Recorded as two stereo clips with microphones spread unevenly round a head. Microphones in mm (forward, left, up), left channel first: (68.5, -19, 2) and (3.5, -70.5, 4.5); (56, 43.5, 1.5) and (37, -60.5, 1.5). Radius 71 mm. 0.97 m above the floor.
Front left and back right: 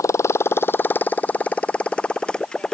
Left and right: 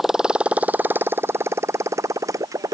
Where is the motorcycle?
15° right; by 2.8 s 45° right.